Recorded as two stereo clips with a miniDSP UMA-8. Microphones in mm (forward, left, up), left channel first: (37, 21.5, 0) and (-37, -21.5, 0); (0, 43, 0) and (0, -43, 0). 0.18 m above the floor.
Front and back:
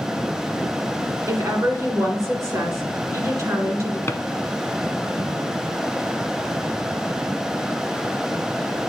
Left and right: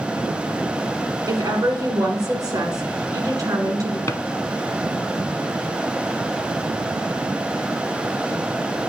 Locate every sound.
1.3 s a woman speaking: 110° right, 1.7 m
4.1 s a drawer: 65° left, 0.5 m